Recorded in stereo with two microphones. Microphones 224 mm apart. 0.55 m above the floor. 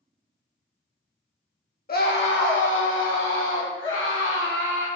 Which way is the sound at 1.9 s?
45° left (ahead or behind).